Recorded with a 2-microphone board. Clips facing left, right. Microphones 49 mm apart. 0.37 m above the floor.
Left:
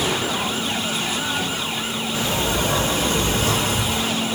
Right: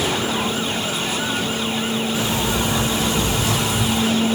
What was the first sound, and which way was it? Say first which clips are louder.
A sliding door: right 1 dB; 45° left (ahead or behind).